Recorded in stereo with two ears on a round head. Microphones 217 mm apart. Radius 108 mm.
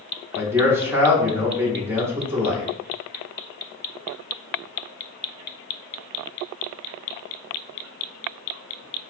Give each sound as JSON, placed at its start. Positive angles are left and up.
{"t": 0.3, "sound": "a man speaking", "side_deg": -10, "distance_m": 0.8}